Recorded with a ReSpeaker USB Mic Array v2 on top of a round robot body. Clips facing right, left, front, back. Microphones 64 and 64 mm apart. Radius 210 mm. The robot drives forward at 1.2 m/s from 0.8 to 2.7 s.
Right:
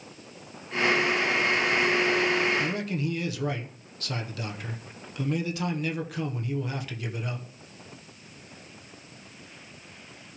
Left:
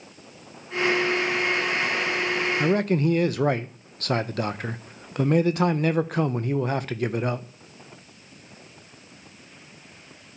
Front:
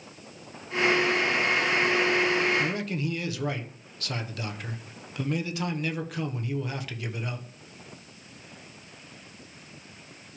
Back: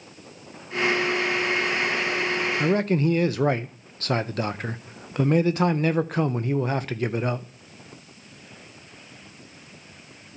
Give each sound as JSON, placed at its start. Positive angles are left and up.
{"t": 2.6, "sound": "a man speaking", "azimuth_deg": 125, "distance_m": 0.8}